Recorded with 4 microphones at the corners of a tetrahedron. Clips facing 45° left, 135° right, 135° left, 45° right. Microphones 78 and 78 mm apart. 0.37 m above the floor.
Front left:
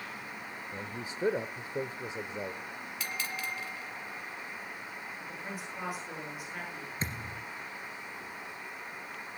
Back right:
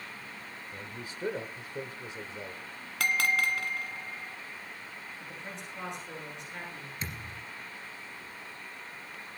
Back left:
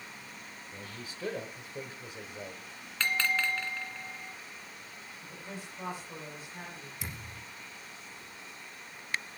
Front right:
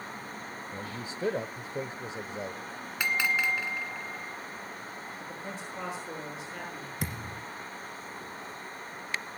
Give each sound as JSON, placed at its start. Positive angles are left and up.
{"t": 0.7, "sound": "a man speaking", "azimuth_deg": -5, "distance_m": 1.0}
{"t": 3.0, "sound": "a bell", "azimuth_deg": -120, "distance_m": 1.6}
{"t": 5.2, "sound": "a man speaking", "azimuth_deg": -35, "distance_m": 7.5}
{"t": 7.0, "sound": "a thud", "azimuth_deg": -10, "distance_m": 2.5}